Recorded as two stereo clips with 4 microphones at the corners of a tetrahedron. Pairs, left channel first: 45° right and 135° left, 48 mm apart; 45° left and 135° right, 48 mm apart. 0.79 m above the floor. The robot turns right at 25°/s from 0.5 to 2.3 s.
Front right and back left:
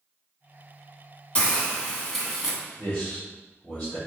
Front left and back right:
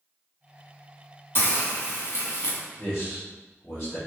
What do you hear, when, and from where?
1.4 s a hiss: 15° left, 1.5 m; by 2.6 s 35° left, 1.5 m
2.8 s a man speaking: 15° left, 2 m